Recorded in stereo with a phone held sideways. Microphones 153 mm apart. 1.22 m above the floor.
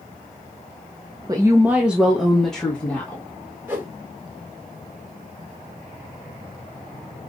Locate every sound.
1.3 s a woman speaking: 25° right (ahead or behind), 0.6 m; by 3.3 s 10° left (ahead or behind), 1.5 m
3.7 s a whoosh: 15° right (ahead or behind), 2.5 m